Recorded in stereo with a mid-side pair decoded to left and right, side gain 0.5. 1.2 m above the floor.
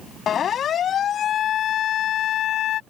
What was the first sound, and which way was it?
A siren, 50° left.